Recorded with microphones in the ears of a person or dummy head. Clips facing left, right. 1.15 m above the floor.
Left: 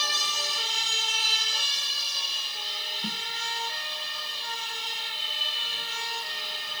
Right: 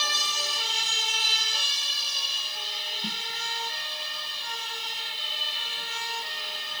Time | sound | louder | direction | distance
3.0 | a snare drum | left 1 dB | centre (ahead or behind) | ?